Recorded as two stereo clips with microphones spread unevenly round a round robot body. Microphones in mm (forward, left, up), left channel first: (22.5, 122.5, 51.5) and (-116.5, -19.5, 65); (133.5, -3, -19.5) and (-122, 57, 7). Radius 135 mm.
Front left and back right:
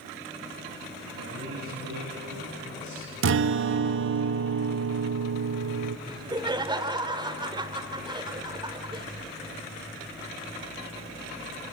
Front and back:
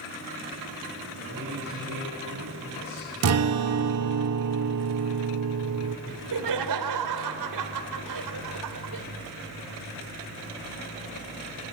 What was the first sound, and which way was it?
A man speaking, 140° right.